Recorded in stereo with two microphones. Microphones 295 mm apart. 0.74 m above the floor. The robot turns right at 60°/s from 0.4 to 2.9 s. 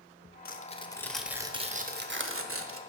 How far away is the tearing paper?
About 0.6 m.